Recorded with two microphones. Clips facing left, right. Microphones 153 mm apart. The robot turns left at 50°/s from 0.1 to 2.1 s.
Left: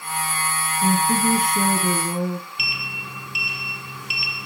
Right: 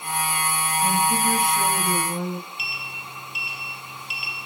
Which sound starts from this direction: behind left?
A woman speaking, at 0.8 s.